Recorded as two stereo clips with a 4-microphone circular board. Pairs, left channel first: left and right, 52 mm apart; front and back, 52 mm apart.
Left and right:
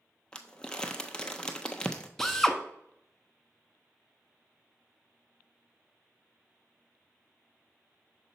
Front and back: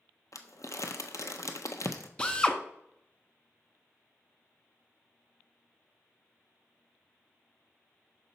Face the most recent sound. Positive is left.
turn(degrees=20)